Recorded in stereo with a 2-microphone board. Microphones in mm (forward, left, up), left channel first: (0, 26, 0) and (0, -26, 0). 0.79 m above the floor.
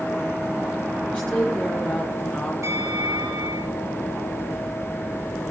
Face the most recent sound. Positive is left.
turn(degrees=-85)